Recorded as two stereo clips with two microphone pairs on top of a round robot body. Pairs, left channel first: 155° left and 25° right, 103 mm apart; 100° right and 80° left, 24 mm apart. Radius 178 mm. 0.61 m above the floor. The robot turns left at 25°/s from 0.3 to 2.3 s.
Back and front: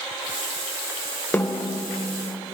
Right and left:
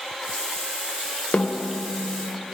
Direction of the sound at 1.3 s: 135° right.